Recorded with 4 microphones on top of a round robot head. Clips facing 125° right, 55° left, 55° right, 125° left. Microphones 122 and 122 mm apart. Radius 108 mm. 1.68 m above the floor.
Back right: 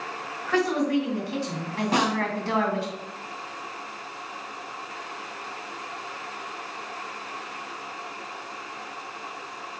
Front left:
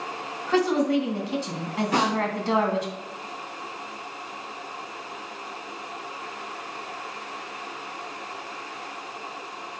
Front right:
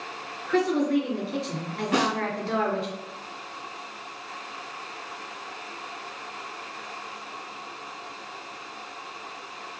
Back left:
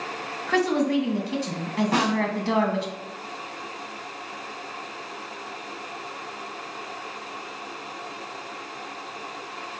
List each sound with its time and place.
0.5 s a woman speaking: 125° left, 2.5 m
1.9 s a snare drum: straight behind, 4.5 m